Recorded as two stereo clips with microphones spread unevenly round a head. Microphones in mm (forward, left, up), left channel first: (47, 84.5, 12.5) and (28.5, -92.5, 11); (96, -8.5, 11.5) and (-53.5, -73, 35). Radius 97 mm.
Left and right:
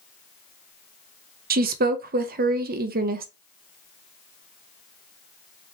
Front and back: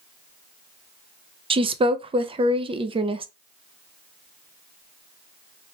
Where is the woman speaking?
100° right, 0.6 m.